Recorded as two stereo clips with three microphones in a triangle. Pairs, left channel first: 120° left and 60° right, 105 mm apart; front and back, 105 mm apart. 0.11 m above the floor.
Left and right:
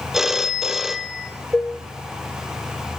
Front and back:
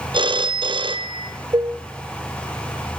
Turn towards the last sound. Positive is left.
turn(degrees=-165)